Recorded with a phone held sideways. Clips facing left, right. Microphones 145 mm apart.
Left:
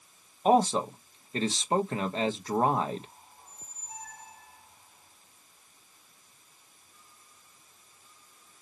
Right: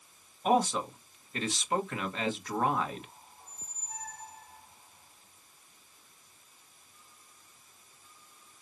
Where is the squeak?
5° left (ahead or behind), 3 m.